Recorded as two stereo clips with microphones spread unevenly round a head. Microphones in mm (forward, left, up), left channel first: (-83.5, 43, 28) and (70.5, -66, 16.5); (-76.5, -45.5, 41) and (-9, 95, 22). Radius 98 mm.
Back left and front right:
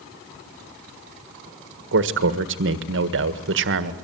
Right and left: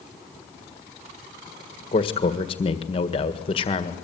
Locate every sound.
1.9 s a man speaking: 50° right, 1.7 m